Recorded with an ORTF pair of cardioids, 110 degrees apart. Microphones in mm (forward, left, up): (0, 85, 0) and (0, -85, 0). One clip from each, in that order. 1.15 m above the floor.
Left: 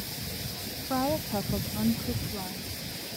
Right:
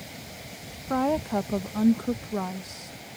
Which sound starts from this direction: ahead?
A woman speaking, at 0.9 s.